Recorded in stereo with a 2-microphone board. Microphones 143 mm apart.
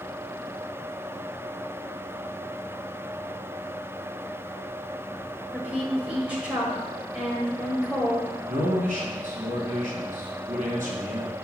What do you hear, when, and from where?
5.5 s a woman speaking: 10° right (ahead or behind), 1.4 m
8.5 s a man speaking: 65° right (ahead or behind), 2.5 m